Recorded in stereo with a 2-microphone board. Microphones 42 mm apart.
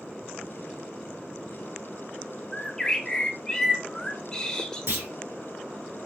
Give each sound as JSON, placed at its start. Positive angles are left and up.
{"t": 2.5, "sound": "a bird", "side_deg": 15, "distance_m": 0.6}
{"t": 4.9, "sound": "a clunk", "side_deg": -80, "distance_m": 1.2}